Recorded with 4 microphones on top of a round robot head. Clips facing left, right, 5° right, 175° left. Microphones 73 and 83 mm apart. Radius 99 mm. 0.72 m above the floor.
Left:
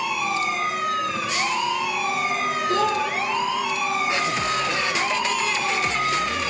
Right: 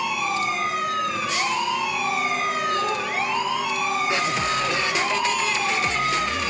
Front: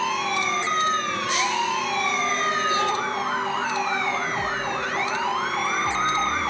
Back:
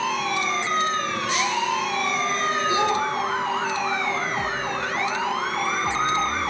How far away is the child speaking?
About 5 m.